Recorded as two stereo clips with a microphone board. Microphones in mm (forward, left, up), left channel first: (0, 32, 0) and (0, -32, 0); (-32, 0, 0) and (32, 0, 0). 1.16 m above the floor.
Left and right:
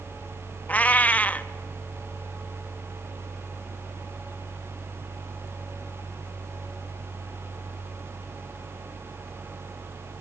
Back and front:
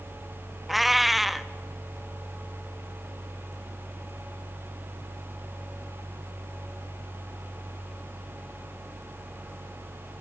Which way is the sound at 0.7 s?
90° left.